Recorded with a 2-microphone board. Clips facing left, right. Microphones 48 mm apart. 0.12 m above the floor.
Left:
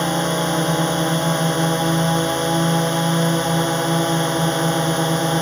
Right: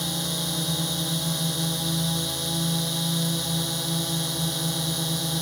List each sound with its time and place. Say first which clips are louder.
0.0 s a drone: left 11 dB; 55° left (ahead or behind)